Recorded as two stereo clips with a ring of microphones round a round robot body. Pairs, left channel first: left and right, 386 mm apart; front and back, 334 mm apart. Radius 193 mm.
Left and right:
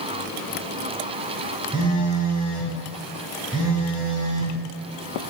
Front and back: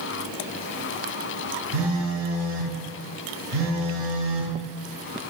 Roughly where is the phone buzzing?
Behind.